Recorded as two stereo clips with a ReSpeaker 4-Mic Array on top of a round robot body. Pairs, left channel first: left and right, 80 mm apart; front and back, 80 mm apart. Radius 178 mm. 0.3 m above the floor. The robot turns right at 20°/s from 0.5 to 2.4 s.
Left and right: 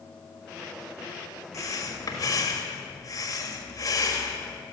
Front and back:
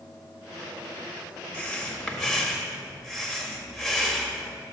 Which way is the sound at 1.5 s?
70° left.